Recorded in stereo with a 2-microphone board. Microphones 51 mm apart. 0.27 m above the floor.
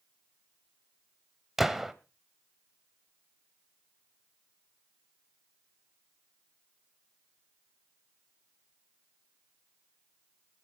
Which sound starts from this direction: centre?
A gunshot, at 1.6 s.